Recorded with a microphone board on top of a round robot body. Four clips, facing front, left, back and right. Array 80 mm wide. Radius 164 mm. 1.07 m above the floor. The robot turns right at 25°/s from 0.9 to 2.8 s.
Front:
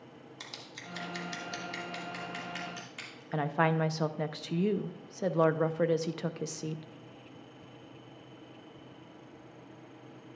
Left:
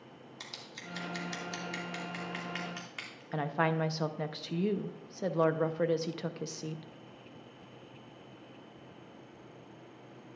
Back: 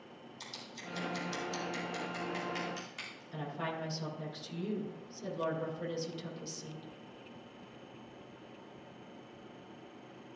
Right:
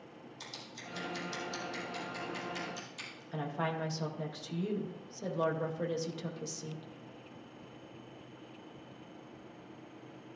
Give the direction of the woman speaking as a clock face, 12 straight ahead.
11 o'clock.